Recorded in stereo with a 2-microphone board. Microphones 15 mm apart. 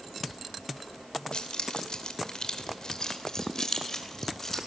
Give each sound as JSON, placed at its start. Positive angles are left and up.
{"t": 1.3, "sound": "keys jangling", "side_deg": 80, "distance_m": 2.5}